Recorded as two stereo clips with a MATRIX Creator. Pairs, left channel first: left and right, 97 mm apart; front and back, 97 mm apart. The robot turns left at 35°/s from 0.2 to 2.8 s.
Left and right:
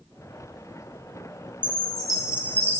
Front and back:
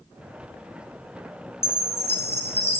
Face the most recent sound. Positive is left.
turn(degrees=-25)